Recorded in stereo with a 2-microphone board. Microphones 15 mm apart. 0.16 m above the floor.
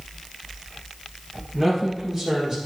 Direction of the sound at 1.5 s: 15° right (ahead or behind).